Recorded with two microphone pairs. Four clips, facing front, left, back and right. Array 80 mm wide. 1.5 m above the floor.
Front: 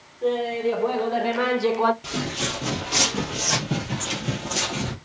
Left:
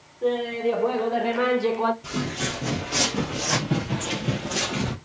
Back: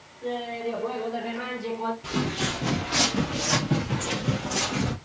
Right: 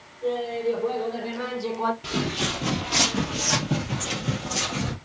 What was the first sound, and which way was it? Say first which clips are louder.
Laughter: left 2 dB, front 7 dB; 50° left.